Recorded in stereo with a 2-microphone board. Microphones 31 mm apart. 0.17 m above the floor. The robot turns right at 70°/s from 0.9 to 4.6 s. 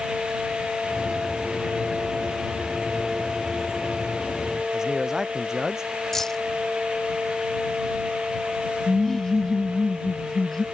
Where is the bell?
I don't hear a bell.